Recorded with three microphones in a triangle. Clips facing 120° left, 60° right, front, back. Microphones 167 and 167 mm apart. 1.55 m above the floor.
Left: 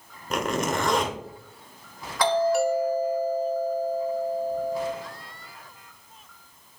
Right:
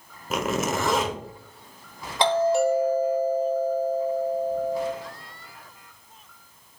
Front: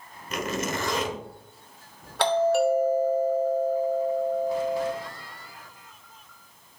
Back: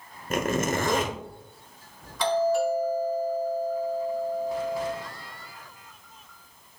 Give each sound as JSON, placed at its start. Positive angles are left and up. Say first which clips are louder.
{"t": 0.3, "sound": "a zipper", "louder": "even, back 4 dB", "azimuth_deg": -145, "distance_m": 1.0}
{"t": 2.2, "sound": "a doorbell", "louder": "right 1 dB, front 2 dB", "azimuth_deg": 0, "distance_m": 1.0}